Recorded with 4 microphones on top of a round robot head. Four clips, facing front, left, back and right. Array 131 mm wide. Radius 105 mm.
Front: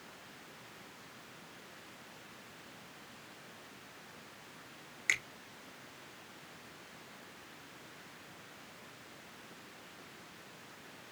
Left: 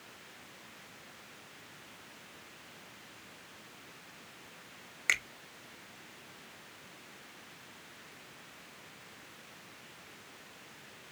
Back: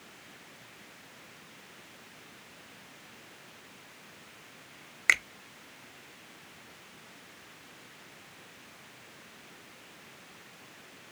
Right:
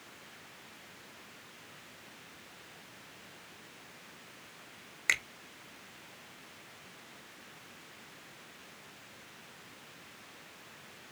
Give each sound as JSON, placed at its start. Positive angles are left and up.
{"t": 5.1, "sound": "a finger snap", "azimuth_deg": -175, "distance_m": 1.0}